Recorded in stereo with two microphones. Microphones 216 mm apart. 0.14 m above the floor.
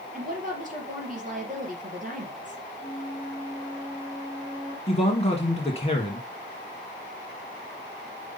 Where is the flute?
25° left (ahead or behind), 3 m.